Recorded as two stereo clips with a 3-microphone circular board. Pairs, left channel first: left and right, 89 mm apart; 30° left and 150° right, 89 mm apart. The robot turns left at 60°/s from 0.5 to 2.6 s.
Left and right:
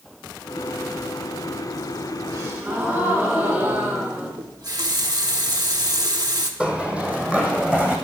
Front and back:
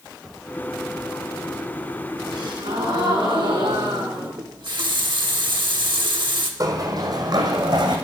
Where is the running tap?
125° right, 1.1 m.